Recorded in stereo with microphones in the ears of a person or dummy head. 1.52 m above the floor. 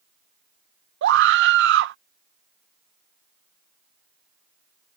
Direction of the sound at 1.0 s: 60° right (ahead or behind).